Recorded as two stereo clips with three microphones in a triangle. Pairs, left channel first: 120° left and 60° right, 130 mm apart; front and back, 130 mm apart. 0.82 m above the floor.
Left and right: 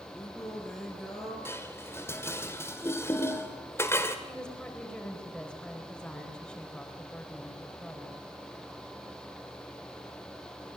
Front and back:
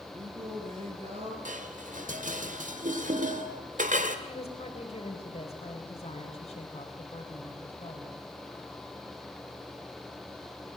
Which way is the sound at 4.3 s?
35° left.